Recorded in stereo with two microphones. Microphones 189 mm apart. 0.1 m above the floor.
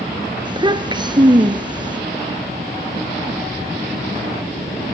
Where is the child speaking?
25° right (ahead or behind), 1.2 m.